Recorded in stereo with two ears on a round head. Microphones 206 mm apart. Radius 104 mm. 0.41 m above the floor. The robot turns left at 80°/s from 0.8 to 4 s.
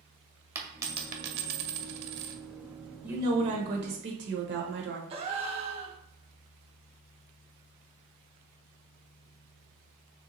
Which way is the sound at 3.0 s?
5° right.